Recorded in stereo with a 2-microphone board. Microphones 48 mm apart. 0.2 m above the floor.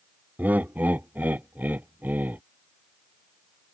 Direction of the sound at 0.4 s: 40° right (ahead or behind).